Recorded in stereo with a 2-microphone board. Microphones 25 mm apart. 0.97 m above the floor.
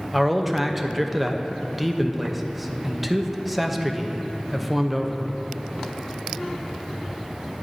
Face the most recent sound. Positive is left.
turn(degrees=-5)  # may be behind; listen again after turning